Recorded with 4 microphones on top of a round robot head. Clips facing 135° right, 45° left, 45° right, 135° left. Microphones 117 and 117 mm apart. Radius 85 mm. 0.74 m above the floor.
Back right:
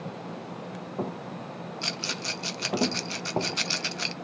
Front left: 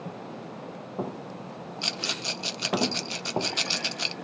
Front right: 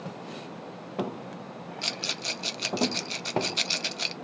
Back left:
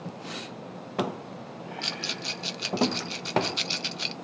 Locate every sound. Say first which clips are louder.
1.8 s a rattle: front left 2 dB, even; 20° right, 0.7 m